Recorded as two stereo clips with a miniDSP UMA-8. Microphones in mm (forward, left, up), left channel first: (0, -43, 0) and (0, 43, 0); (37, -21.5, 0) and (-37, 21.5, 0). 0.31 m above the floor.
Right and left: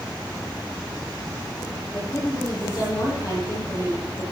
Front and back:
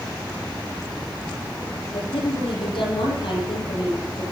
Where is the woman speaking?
45° right, 9 m.